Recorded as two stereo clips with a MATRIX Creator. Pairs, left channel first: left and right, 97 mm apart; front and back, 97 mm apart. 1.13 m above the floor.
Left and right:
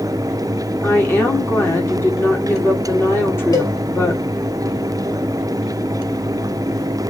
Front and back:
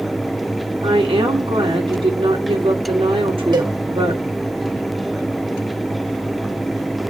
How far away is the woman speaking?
About 2.5 m.